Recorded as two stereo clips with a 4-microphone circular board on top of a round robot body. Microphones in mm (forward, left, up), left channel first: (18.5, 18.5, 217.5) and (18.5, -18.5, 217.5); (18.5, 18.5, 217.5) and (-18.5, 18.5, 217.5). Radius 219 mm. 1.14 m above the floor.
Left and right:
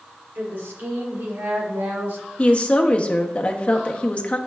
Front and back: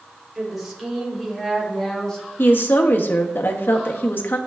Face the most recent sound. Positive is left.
turn(degrees=30)